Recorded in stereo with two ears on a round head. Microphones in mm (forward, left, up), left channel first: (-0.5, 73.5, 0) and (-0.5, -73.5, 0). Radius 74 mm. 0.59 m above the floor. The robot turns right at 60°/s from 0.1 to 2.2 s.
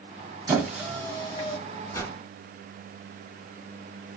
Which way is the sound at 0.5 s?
20° right (ahead or behind).